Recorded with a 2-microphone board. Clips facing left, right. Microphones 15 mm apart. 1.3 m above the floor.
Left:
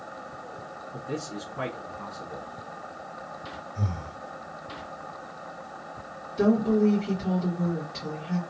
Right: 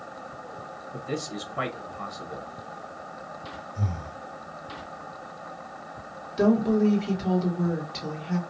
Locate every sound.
0.9 s a man speaking: 70° right (ahead or behind), 0.8 m
3.8 s breathing: 5° left (ahead or behind), 1.5 m
6.4 s a woman speaking: 20° right (ahead or behind), 1.2 m